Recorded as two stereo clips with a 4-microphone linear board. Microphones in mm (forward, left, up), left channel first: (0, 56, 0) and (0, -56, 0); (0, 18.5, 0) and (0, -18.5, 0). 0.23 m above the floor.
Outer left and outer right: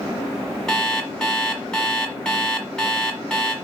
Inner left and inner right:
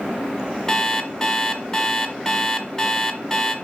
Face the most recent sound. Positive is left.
turn(degrees=5)  # may be behind; listen again after turning